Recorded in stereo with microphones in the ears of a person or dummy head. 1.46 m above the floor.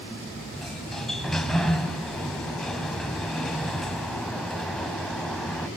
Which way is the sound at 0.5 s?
5° left (ahead or behind).